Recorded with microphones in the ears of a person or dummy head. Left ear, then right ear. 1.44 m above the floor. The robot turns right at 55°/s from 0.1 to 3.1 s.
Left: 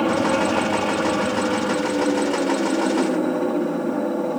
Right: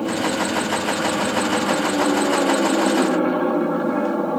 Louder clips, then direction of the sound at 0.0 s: Left 2 dB; 115° left.